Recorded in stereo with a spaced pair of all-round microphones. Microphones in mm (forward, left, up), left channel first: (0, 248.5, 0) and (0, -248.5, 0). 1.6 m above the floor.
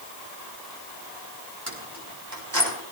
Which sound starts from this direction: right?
Keys jangling, at 1.7 s.